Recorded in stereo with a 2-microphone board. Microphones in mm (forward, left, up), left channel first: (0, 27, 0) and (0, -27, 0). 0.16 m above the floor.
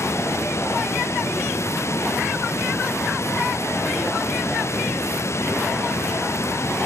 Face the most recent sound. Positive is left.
turn(degrees=60)  # may be behind; listen again after turning